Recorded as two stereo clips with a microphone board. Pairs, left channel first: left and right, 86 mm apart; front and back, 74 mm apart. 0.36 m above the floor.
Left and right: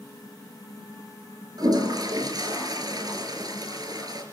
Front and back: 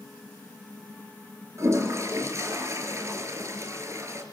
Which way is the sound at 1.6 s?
130° right.